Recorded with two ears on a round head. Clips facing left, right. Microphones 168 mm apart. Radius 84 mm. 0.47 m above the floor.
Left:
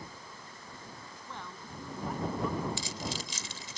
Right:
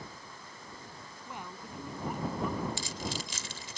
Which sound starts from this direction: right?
Keys jangling, at 2.8 s.